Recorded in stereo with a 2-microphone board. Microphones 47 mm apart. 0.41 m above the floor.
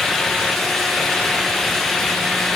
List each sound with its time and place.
Only background noise.